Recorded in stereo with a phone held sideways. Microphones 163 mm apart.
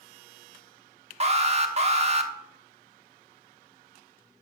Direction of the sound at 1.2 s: 40° right (ahead or behind).